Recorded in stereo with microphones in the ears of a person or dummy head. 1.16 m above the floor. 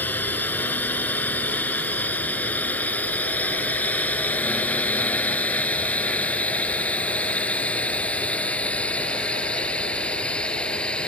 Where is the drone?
10° left (ahead or behind); by 11.1 s 5° left (ahead or behind).